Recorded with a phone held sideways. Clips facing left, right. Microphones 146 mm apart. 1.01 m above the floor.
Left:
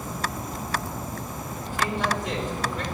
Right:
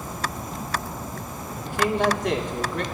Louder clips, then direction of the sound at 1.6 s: Right 5 dB; 70° right (ahead or behind).